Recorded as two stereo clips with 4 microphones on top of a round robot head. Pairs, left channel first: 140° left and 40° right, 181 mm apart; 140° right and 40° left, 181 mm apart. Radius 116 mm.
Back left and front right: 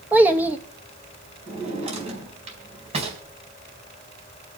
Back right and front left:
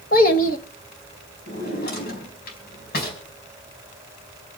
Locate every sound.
0.1 s a child speaking: 120° right, 1.0 m
1.5 s a drawer: 100° right, 4 m